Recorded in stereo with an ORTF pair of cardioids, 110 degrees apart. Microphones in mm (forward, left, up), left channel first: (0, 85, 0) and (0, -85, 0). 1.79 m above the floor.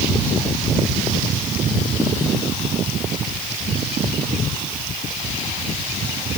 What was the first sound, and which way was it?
Only background noise.